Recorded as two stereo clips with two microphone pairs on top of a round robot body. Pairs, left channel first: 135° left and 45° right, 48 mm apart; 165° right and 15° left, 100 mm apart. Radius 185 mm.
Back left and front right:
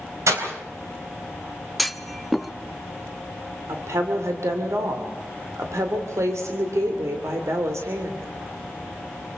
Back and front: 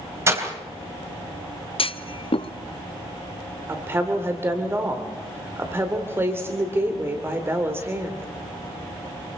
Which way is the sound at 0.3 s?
45° right.